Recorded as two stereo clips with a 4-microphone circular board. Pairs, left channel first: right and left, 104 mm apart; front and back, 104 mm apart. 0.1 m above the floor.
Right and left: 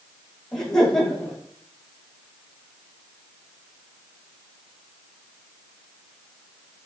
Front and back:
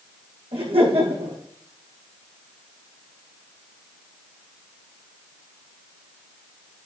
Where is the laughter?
175° right, 6.5 m.